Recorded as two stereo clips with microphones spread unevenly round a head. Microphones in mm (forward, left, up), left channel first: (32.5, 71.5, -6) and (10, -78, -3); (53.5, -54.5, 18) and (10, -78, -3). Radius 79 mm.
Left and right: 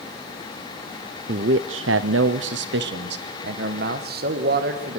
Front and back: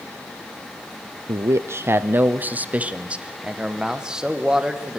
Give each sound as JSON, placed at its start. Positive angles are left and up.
{"t": 1.3, "sound": "a man speaking", "azimuth_deg": -135, "distance_m": 0.9}